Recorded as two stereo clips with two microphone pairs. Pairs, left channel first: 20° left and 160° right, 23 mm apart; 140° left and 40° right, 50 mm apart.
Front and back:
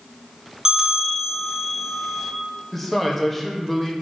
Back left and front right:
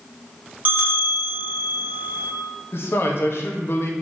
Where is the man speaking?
105° left, 0.8 m.